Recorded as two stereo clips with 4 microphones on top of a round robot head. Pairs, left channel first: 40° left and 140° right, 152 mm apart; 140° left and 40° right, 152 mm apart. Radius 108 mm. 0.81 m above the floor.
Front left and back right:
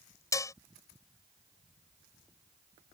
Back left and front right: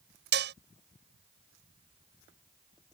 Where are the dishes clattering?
30° right.